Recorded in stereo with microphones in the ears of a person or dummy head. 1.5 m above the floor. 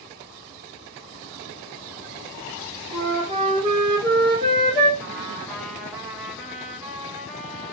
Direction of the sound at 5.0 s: Centre (ahead or behind).